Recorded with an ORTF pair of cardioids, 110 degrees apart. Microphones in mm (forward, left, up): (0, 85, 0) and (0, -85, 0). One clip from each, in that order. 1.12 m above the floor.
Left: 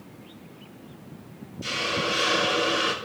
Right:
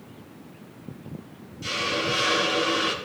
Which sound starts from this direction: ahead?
A hiss, at 1.6 s.